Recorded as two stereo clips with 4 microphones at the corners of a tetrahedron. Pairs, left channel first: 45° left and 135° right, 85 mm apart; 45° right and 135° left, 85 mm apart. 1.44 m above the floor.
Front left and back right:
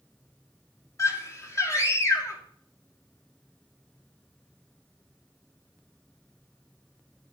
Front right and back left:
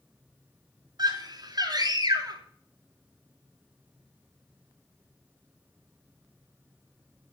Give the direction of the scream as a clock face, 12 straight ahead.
9 o'clock.